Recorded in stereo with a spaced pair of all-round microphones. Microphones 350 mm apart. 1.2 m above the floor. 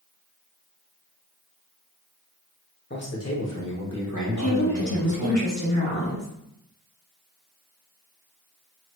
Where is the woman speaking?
50° left (ahead or behind), 1.0 m.